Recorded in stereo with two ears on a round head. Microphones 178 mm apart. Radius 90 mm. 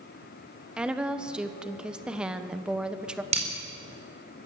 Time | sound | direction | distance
0.8 | a woman speaking | 5° right (ahead or behind) | 1.0 m
3.3 | breaking glass | 35° right (ahead or behind) | 4 m